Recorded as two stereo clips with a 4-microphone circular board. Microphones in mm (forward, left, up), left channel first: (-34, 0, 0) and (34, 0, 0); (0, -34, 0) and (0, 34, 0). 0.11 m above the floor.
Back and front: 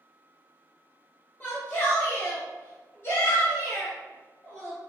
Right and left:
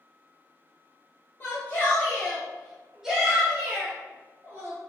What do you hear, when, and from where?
1.4 s a shout: 135° right, 1.6 m; by 4.8 s 130° left, 1.9 m